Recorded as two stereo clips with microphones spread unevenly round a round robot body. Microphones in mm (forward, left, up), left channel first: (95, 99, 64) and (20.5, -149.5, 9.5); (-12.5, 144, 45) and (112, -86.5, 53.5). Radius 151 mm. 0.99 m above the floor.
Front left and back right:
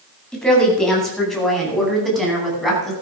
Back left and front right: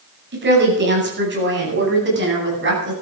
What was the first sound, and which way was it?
A woman speaking, 15° right.